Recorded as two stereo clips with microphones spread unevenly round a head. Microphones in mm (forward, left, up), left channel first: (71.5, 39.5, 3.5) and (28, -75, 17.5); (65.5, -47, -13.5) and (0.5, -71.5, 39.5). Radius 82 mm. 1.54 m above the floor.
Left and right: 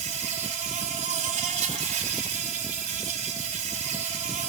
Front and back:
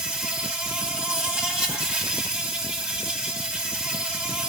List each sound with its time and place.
0.0 s an insect: 95° right, 3 m